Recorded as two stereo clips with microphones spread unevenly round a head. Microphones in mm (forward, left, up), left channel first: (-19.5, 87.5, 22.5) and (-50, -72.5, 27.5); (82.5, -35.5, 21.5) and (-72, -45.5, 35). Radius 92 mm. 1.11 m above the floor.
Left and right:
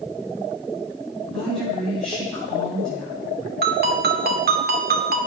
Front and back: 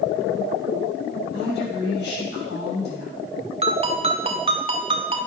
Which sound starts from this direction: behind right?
A ringtone, at 3.6 s.